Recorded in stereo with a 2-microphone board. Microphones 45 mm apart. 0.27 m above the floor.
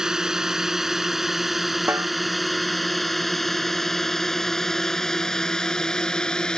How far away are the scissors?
I don't hear scissors.